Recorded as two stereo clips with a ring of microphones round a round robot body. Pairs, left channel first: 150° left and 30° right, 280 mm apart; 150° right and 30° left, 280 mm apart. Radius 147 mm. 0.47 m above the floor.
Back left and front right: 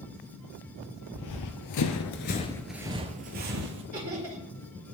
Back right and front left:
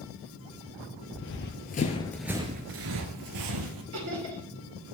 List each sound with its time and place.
1.1 s running footsteps: 165° left, 1.0 m; by 3.8 s 20° left, 1.0 m
3.9 s laughter: 25° left, 2 m